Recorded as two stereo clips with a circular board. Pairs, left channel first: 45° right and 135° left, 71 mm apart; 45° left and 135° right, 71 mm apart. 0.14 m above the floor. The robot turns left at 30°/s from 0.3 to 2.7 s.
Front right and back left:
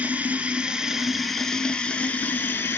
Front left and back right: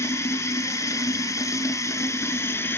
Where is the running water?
75° left, 0.7 m; by 2.8 s straight ahead, 0.7 m.